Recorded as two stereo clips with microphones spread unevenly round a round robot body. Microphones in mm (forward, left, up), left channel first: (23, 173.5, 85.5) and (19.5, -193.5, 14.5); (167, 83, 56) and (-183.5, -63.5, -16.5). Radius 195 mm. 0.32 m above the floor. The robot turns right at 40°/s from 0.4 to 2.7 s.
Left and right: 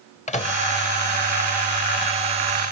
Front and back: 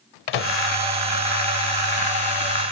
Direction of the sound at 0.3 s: 15° left.